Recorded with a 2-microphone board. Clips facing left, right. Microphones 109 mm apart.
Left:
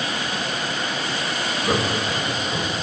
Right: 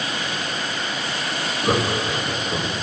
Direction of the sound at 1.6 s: 30° right (ahead or behind).